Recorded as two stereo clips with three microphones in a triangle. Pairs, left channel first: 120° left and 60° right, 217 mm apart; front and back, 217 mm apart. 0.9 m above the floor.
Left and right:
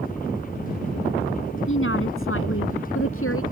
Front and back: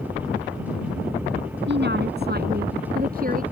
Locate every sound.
1.7 s a woman speaking: 145° left; by 3.4 s 130° left